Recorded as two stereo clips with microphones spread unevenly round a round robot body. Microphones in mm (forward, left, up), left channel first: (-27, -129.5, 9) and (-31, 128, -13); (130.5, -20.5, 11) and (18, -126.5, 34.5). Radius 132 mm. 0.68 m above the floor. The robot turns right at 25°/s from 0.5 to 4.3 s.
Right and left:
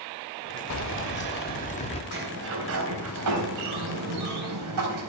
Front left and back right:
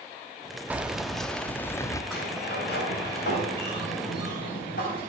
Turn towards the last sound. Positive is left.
turn(degrees=90)